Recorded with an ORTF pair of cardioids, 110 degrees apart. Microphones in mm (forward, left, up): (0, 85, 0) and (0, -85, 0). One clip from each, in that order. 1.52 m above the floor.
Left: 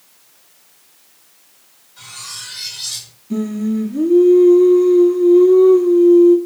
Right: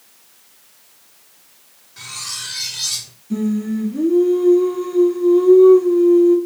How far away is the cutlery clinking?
About 2 m.